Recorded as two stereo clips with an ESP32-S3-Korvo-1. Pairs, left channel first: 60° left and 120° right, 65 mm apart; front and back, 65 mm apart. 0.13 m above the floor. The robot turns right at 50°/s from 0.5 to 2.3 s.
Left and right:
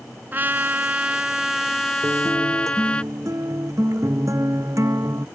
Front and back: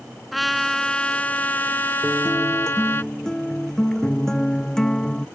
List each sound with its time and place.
0.3 s a trumpet: 90° right; by 3.0 s straight ahead
2.0 s a guitar: 95° right; by 5.3 s 80° right